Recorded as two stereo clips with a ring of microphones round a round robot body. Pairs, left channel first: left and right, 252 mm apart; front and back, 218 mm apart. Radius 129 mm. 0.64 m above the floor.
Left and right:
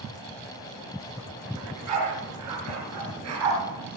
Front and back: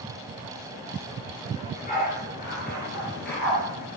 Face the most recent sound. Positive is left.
turn(degrees=-55)